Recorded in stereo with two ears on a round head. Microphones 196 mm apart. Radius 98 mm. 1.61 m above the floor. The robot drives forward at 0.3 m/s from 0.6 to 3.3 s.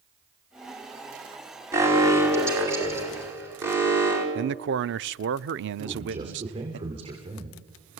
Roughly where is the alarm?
Centre.